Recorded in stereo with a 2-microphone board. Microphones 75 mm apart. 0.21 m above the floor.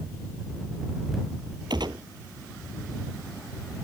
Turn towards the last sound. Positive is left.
turn(degrees=-70)  # may be behind; listen again after turning